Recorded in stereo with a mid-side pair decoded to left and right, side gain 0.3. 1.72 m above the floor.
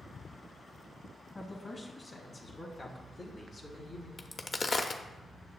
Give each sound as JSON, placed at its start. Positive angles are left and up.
{"t": 1.4, "sound": "a man speaking", "azimuth_deg": 35, "distance_m": 2.0}
{"t": 4.2, "sound": "a crack", "azimuth_deg": 45, "distance_m": 0.6}